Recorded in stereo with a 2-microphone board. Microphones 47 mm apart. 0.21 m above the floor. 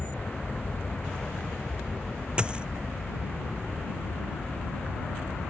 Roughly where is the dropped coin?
Centre.